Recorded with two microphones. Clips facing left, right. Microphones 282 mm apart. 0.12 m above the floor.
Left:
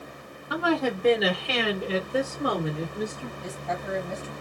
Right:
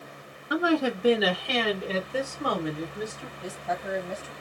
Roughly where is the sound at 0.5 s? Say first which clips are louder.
Right 1 dB; centre.